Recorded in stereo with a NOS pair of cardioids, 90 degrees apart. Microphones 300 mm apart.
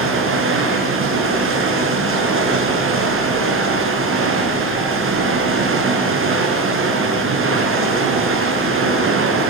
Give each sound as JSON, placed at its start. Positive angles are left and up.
{"t": 0.0, "sound": "running water", "azimuth_deg": -40, "distance_m": 8.0}